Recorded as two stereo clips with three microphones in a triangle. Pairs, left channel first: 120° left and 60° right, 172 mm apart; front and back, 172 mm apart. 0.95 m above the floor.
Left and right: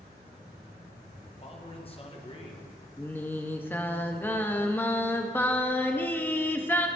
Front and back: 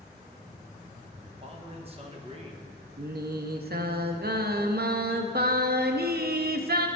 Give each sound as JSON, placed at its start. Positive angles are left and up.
{"t": 1.4, "sound": "a man speaking", "azimuth_deg": 150, "distance_m": 1.1}
{"t": 3.0, "sound": "singing", "azimuth_deg": -160, "distance_m": 0.5}